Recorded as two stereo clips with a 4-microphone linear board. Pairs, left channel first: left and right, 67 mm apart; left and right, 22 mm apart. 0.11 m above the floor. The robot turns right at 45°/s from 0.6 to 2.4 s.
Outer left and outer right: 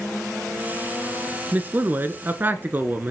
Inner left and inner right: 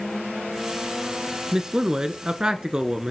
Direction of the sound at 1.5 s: 25° right (ahead or behind).